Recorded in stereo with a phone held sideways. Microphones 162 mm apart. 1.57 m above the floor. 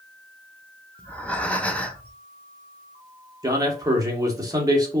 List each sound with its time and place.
1.0 s breathing: 10° left (ahead or behind), 0.6 m
3.4 s a man speaking: 20° right (ahead or behind), 1.2 m